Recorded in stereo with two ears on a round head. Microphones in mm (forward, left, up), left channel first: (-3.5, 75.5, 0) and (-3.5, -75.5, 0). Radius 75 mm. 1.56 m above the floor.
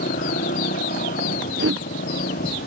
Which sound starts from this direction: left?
A motorcycle, at 0.0 s.